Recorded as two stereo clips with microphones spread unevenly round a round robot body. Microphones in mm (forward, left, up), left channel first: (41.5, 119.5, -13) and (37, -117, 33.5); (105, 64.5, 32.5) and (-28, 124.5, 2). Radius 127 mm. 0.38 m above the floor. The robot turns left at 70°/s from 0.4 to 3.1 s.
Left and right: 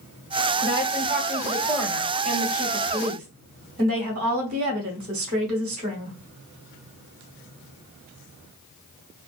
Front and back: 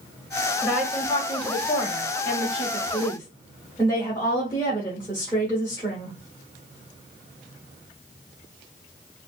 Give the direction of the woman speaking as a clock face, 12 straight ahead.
9 o'clock.